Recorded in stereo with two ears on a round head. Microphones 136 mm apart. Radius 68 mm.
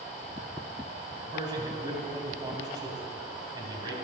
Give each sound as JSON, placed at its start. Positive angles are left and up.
{"t": 1.3, "sound": "a man speaking", "side_deg": -25, "distance_m": 3.5}